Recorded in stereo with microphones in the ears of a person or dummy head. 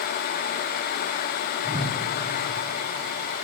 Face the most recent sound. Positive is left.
turn(degrees=-25)  # may be behind; listen again after turning